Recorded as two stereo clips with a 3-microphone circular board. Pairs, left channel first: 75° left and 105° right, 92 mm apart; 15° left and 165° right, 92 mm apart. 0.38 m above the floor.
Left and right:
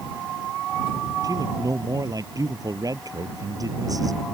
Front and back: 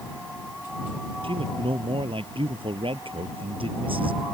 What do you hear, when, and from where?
1.2 s a man speaking: 150° right